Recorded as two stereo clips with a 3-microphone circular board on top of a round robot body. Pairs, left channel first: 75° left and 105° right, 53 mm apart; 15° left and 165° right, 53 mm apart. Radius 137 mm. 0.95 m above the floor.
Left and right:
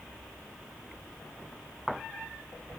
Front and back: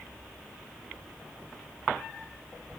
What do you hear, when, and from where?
Only background noise.